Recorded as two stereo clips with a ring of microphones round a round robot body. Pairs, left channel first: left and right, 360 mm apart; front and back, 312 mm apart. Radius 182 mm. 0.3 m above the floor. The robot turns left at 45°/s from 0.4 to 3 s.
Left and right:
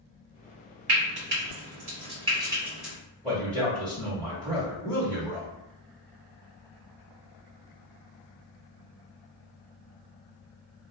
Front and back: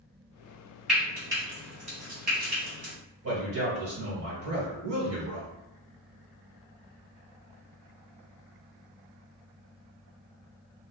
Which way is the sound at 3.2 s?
175° left.